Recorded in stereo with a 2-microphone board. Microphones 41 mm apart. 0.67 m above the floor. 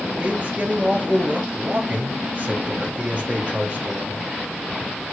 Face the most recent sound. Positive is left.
turn(degrees=-30)  # may be behind; listen again after turning